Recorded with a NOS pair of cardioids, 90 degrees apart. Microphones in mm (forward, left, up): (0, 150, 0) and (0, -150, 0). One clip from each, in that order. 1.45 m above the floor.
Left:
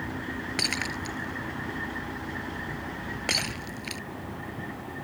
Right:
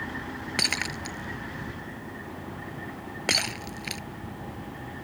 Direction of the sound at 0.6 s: 25° right.